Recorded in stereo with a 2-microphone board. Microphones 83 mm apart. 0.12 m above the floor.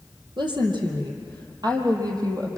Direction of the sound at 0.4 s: 65° right (ahead or behind).